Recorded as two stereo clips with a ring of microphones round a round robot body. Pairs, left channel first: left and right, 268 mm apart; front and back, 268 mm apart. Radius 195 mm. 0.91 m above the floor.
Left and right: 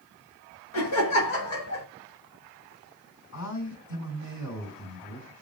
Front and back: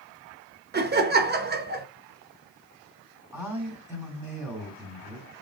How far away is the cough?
I don't hear a cough.